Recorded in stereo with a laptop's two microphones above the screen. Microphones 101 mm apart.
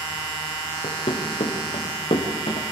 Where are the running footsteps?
70° left (ahead or behind), 5.5 m.